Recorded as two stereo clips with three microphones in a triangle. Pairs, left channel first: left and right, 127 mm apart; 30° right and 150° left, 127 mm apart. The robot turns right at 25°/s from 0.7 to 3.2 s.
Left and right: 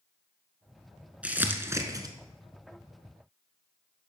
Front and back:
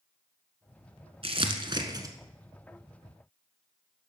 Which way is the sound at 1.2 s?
170° right.